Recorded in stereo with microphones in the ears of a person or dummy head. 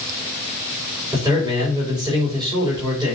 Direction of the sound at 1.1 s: 20° right (ahead or behind).